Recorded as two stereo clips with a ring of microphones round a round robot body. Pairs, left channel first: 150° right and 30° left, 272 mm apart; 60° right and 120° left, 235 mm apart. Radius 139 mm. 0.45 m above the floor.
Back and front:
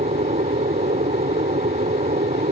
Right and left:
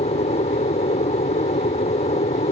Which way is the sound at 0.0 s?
20° right.